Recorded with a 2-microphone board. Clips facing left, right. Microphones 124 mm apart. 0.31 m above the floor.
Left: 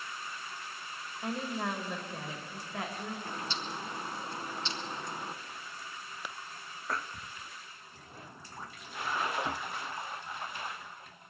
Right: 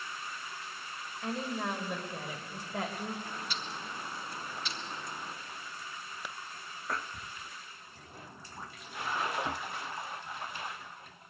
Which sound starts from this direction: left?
A bird, at 3.2 s.